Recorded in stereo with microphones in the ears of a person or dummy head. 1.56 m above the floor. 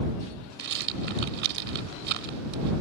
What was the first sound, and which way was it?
A rattle, 65° right (ahead or behind).